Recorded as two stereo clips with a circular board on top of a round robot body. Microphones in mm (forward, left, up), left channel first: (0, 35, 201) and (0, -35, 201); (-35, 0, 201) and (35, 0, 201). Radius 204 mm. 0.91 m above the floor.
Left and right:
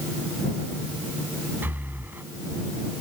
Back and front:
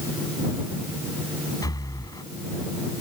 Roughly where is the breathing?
Behind right.